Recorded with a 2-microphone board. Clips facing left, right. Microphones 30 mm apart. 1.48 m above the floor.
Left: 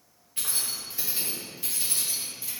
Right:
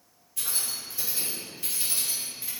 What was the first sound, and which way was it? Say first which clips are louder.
Keys jangling: left 1 dB; 40° left (ahead or behind).